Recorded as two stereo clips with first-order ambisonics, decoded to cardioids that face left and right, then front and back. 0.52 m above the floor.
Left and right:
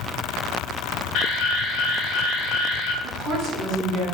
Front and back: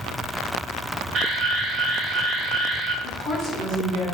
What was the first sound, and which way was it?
An alarm, 120° left.